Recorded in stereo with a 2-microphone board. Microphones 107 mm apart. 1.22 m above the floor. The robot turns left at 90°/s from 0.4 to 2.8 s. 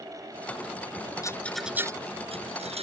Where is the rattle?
30° left (ahead or behind); by 2.8 s 70° right (ahead or behind).